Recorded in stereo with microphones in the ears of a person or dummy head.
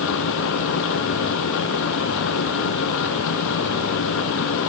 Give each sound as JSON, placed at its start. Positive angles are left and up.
{"t": 0.0, "sound": "a machine running", "side_deg": 70}